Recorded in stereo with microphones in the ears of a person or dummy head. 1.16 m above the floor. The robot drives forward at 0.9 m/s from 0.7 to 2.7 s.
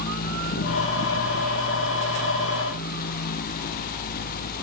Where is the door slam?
I don't hear a door slam.